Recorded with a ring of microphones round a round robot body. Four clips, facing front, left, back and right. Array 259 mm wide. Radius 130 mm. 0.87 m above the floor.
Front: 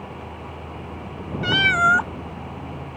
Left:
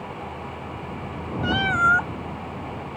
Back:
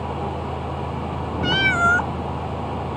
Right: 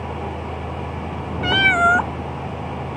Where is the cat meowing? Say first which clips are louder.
Right 4 dB, front 1 dB; 80° right.